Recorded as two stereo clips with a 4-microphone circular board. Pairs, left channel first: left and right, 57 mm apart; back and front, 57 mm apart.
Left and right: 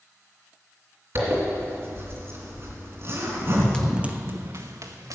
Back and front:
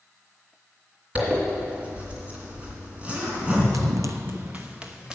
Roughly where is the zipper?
Ahead right.